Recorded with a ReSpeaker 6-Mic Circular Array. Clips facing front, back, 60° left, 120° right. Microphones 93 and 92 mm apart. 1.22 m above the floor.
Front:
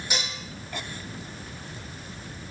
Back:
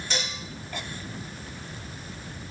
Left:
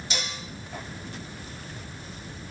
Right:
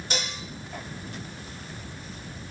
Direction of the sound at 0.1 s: 80° right.